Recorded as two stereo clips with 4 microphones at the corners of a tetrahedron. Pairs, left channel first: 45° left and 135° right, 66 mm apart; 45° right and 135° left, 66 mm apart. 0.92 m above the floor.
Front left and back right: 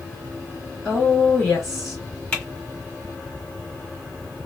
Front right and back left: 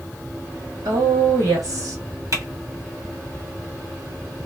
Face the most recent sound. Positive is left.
turn(degrees=110)